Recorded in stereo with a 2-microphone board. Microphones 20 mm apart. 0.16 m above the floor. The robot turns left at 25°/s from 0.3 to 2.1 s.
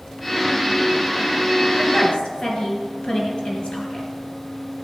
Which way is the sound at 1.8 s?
55° left (ahead or behind).